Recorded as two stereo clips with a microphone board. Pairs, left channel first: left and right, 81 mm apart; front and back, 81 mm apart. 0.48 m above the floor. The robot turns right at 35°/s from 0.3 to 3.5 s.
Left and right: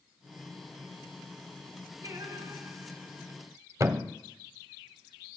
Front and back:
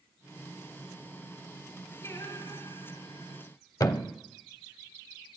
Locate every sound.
2.0 s singing: 50° right, 6 m; by 3.4 s 5° right, 6 m
3.8 s a thud: 40° right, 0.7 m